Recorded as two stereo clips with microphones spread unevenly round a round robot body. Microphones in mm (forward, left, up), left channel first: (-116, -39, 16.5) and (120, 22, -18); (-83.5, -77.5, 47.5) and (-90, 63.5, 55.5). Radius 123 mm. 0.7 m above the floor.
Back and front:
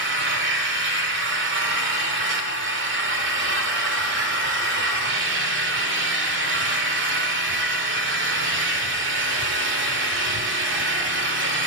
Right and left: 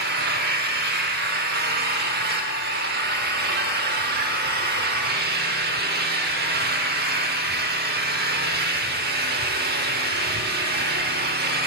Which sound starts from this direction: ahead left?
An engine running, at 0.0 s.